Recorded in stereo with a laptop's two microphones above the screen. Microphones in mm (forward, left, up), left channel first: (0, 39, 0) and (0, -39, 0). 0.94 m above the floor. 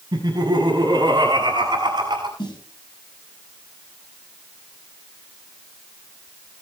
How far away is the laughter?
About 6.5 m.